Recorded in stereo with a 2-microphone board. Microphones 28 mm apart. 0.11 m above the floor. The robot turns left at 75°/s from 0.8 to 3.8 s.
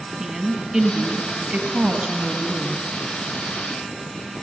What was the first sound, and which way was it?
A woman speaking, 35° right.